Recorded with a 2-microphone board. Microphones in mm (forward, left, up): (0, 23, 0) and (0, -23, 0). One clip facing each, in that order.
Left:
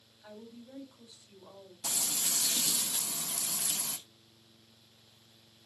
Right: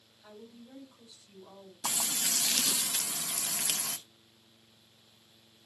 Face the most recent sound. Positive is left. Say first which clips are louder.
# right 3 dB
turn(degrees=-85)